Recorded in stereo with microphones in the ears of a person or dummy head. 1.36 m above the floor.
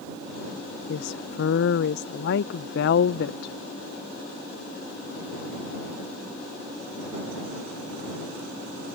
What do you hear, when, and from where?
0.9 s a woman speaking: 55° left (ahead or behind)